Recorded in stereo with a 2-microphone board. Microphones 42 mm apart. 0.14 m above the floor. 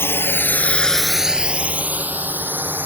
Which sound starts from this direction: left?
A drone, at 0.0 s.